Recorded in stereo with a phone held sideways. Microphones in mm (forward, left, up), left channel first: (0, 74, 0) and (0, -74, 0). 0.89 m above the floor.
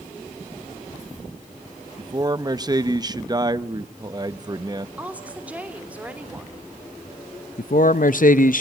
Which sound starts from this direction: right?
A man speaking, at 2.0 s.